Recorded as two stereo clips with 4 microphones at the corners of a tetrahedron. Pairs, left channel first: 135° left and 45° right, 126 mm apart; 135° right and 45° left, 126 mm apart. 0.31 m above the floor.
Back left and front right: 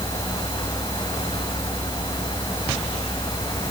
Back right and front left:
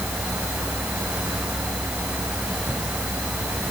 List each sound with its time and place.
Only background noise.